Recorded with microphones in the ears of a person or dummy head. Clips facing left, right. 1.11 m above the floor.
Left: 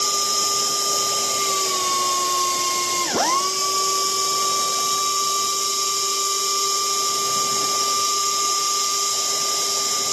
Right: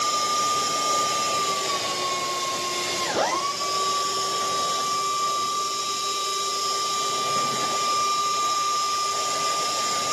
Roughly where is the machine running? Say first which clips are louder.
Right 1 dB; left.